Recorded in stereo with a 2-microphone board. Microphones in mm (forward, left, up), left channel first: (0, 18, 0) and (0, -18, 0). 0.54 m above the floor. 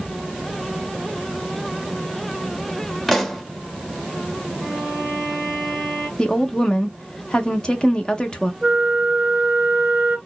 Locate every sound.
3.1 s a pop: 5° left (ahead or behind), 0.7 m
4.6 s a violin: 5° right (ahead or behind), 2 m
6.2 s a woman speaking: 25° left (ahead or behind), 0.8 m
8.6 s a flute: 15° right (ahead or behind), 1.3 m